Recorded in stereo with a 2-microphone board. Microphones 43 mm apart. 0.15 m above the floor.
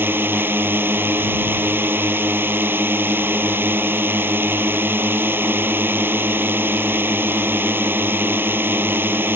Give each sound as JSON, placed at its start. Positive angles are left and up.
{"t": 0.0, "sound": "a drone", "side_deg": -55}